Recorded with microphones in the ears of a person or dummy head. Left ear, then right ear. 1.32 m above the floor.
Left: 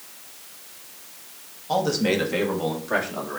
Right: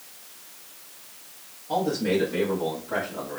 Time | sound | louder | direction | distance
1.7 | a man speaking | left 2 dB | 45° left (ahead or behind) | 1.9 m